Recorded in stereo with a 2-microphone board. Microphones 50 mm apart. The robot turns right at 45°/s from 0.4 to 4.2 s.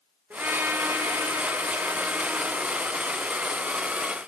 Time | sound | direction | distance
0.3 | a trumpet | 130° right | 4 m